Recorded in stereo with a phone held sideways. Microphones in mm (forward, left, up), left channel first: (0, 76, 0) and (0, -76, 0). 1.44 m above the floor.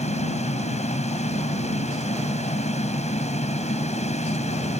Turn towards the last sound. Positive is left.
turn(degrees=45)  # may be behind; listen again after turning